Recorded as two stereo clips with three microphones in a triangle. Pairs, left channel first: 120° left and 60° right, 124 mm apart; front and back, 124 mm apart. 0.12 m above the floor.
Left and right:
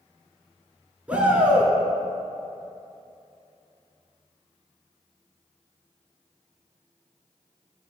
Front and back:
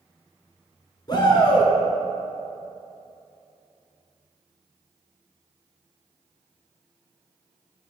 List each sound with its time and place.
1.1 s a shout: 15° left, 1.3 m